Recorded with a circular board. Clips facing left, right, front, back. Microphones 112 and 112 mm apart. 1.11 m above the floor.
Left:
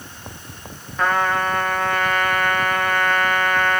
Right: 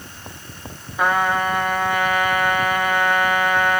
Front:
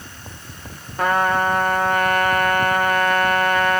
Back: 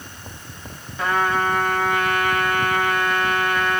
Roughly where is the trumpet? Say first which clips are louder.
Right 1 dB, front 2 dB; ahead.